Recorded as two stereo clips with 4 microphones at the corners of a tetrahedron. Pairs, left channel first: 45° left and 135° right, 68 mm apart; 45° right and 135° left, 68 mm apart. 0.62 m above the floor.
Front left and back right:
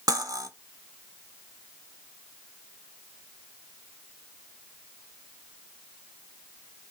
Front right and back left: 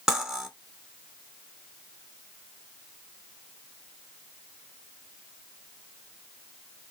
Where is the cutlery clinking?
145° right, 1.1 m.